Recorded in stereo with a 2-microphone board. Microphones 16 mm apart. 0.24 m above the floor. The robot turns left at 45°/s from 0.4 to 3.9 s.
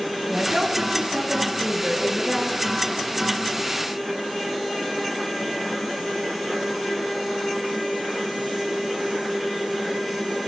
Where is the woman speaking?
70° right, 3 m; by 2.6 s 170° right, 3 m.